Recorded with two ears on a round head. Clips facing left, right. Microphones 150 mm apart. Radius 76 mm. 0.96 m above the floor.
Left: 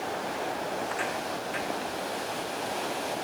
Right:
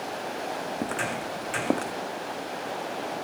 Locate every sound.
0.8 s footsteps: 40° right (ahead or behind); by 1.9 s 60° right (ahead or behind)